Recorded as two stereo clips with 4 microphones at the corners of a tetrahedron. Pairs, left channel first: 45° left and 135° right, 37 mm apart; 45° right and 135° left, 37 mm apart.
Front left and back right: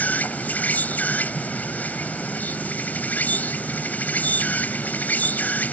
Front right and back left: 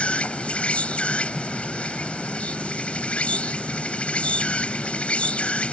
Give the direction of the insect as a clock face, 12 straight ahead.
12 o'clock.